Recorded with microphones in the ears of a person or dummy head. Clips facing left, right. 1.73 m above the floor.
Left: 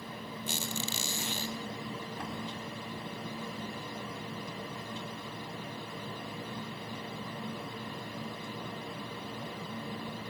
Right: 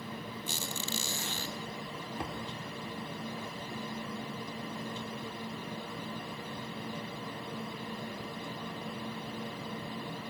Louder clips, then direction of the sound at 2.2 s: Right 4 dB; 20° right (ahead or behind).